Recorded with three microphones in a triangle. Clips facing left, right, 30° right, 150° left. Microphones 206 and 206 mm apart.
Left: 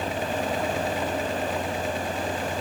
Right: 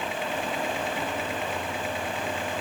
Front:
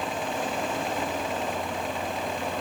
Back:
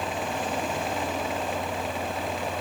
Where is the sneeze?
I don't hear a sneeze.